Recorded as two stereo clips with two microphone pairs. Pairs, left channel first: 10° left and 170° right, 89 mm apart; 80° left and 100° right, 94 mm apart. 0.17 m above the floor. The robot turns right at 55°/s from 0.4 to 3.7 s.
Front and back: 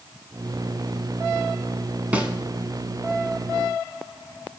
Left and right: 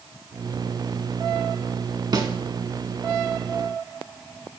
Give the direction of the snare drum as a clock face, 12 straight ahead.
3 o'clock.